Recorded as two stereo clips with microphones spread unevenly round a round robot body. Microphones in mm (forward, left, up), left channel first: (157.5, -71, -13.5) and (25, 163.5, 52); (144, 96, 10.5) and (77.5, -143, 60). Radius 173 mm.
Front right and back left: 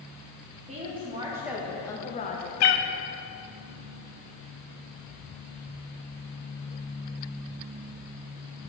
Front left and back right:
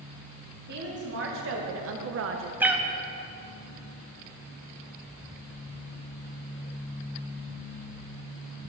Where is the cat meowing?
25° right, 0.6 m.